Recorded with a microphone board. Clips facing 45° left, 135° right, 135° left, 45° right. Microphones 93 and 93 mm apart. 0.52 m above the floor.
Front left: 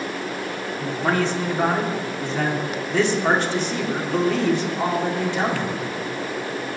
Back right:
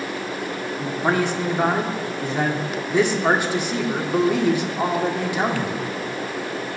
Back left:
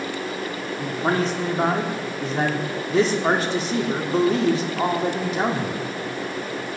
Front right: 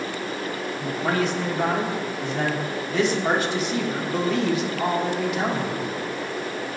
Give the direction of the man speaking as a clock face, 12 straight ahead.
7 o'clock.